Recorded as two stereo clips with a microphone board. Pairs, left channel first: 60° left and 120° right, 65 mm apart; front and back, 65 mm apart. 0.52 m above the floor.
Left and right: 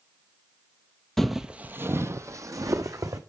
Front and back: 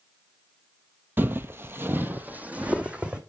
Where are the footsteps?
145° left, 0.6 m; by 3.2 s 110° right, 1.4 m.